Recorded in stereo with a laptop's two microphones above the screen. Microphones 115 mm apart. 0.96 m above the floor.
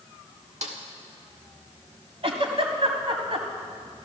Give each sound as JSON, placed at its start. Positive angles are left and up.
{"t": 0.6, "sound": "a snare drum", "side_deg": -75, "distance_m": 1.8}
{"t": 2.2, "sound": "a giggle", "side_deg": -55, "distance_m": 1.6}